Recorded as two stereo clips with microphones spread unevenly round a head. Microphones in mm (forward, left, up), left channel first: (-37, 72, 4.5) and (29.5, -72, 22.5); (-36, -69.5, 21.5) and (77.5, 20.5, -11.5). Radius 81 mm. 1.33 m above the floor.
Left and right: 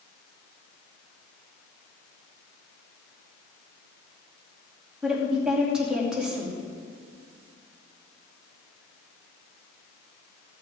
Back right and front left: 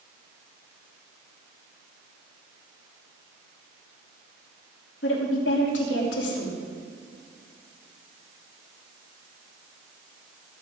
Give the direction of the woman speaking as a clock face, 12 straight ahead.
5 o'clock.